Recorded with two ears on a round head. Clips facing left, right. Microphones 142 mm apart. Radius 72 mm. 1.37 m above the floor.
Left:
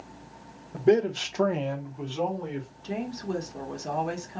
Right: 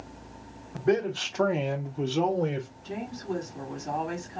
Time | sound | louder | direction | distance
0.7 | a man speaking | left 4 dB | 35° left (ahead or behind) | 1.2 m
2.8 | a woman speaking | left 4 dB | 65° left (ahead or behind) | 1.5 m